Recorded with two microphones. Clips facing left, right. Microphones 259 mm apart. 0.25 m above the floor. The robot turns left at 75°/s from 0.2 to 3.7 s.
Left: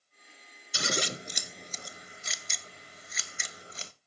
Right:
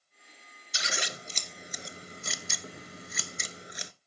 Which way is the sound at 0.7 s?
60° left (ahead or behind).